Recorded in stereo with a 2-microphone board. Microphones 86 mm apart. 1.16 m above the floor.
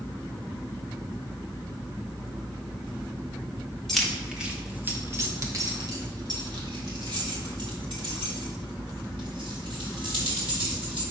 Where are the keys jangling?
5° left (ahead or behind), 1.0 m; by 11.0 s 85° right, 3.5 m.